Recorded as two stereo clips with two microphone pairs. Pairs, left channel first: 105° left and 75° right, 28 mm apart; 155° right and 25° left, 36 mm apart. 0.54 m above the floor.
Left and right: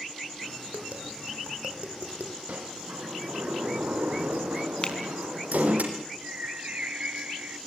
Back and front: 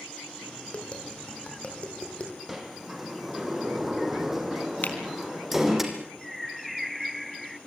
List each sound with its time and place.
0.7 s tapping: 100° right, 6 m
2.5 s a sliding door: 60° right, 4 m
4.8 s a finger snap: 165° left, 3.5 m
6.2 s a bird: 65° right, 0.7 m